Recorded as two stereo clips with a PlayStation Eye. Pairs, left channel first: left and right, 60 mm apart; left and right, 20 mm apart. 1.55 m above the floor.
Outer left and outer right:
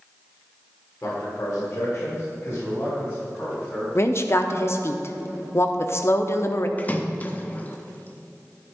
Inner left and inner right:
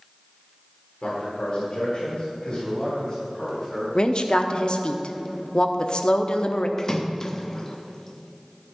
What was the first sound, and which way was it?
A man speaking, 35° left (ahead or behind).